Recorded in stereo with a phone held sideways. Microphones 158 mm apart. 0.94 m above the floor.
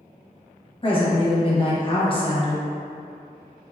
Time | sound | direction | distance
0.8 | a woman speaking | 35° left (ahead or behind) | 0.7 m